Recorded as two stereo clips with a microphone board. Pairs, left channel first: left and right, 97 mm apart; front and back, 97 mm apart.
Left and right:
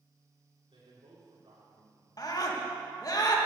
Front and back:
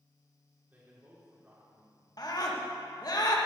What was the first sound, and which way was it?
A man speaking, 110° right.